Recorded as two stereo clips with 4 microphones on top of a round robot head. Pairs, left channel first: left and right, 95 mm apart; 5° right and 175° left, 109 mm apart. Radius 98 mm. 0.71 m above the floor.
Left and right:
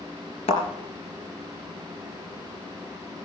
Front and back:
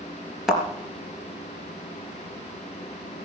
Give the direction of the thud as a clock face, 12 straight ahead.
9 o'clock.